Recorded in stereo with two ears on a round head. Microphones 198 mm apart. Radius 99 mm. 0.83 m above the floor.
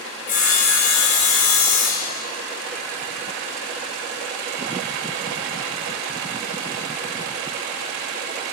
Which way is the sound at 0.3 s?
35° left (ahead or behind).